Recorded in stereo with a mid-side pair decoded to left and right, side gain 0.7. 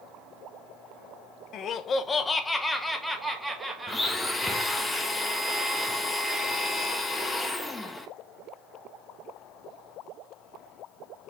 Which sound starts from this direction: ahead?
A blender, at 3.9 s.